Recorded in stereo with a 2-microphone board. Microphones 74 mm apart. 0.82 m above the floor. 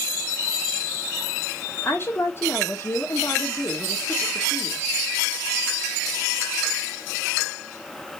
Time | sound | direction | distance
1.8 | a woman speaking | 30° left (ahead or behind) | 1.6 m